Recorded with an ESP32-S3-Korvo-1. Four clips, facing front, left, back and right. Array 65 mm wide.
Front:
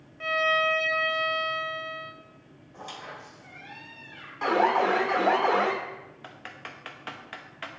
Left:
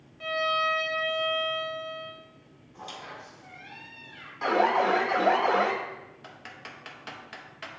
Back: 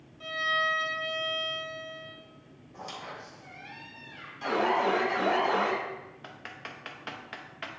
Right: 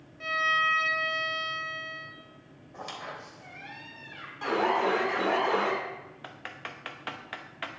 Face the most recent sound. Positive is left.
turn(degrees=-75)